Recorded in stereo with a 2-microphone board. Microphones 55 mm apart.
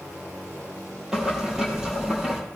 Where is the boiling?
10° right (ahead or behind), 3.5 m.